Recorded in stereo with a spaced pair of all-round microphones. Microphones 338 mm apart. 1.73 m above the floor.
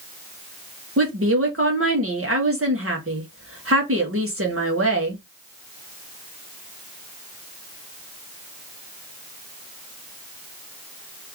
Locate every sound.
1.0 s a woman speaking: 40° right (ahead or behind), 1.7 m